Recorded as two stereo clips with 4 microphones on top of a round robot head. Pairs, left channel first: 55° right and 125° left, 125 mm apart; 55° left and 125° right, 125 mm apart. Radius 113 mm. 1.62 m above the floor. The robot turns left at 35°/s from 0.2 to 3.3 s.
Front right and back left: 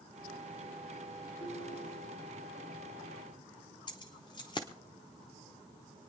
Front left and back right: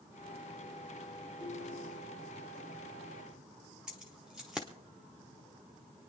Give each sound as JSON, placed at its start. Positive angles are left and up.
{"t": 1.4, "sound": "a ringtone", "azimuth_deg": -45, "distance_m": 6.0}
{"t": 3.9, "sound": "keys jangling", "azimuth_deg": -45, "distance_m": 0.6}